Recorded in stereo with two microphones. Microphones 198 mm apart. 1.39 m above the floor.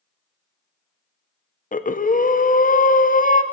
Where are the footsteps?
I don't hear footsteps.